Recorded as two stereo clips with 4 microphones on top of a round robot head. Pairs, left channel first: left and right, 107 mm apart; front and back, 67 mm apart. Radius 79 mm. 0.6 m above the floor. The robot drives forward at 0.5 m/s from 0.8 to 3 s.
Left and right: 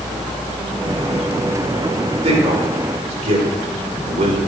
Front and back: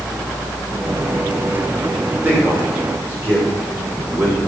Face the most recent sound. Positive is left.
turn(degrees=-115)